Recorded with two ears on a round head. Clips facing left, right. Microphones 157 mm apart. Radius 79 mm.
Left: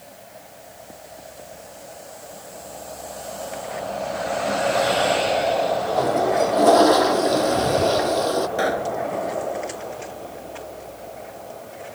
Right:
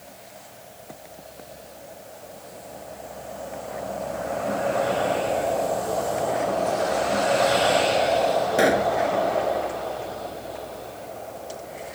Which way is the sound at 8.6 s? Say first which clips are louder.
Right 3 dB; 25° right (ahead or behind).